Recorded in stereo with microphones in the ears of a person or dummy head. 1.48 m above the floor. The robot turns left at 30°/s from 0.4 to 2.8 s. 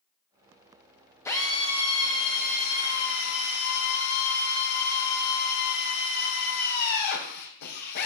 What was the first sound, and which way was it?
A drill, 175° left.